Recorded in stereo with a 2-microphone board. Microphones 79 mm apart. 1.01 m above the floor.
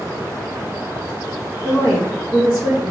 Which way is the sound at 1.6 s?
60° left (ahead or behind).